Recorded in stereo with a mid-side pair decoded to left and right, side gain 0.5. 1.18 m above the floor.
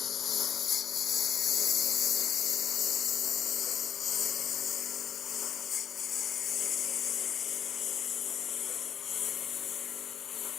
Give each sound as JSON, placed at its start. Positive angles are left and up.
{"t": 0.0, "sound": "a lawn mower", "azimuth_deg": 50}